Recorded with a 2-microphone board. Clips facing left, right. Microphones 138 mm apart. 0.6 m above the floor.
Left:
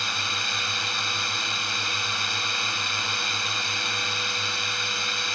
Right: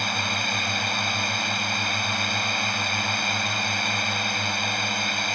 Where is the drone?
55° right (ahead or behind).